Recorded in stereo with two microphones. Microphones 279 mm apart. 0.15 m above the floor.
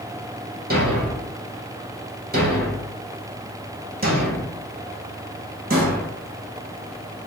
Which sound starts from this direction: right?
A thud, at 0.7 s.